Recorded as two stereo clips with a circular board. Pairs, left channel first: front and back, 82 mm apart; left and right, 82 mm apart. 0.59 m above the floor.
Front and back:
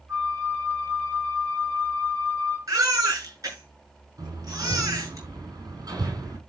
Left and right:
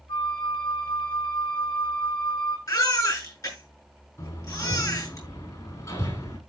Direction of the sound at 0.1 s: 115° left.